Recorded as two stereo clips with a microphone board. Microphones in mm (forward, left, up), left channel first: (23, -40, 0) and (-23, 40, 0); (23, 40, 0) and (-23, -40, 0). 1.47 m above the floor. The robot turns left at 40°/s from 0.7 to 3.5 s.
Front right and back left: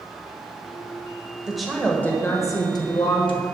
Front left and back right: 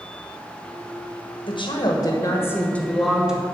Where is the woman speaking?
35° left, 1.3 m; by 3.4 s 45° right, 1.3 m.